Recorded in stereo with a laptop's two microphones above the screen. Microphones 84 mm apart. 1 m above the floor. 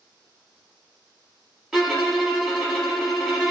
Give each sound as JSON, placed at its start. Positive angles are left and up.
{"t": 1.7, "sound": "a violin", "side_deg": -5, "distance_m": 0.8}